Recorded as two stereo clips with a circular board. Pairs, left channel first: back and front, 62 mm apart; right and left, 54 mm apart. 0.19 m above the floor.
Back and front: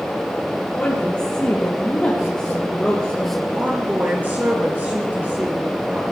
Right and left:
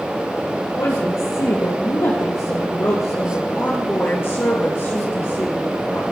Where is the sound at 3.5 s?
55° right, 2.0 m.